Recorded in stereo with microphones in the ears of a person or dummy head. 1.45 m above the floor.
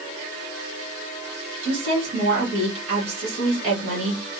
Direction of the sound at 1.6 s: 40° right (ahead or behind).